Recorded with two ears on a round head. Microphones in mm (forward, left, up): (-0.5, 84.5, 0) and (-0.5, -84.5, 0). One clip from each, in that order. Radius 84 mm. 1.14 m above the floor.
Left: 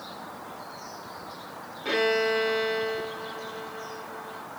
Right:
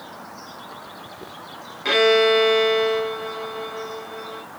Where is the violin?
55° right (ahead or behind), 1.4 m.